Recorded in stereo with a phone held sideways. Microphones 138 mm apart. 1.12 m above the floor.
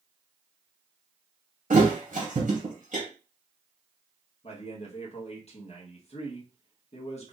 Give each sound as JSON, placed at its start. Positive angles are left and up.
{"t": 1.7, "sound": "a thud", "side_deg": -70, "distance_m": 2.5}
{"t": 4.4, "sound": "a man speaking", "side_deg": 50, "distance_m": 1.3}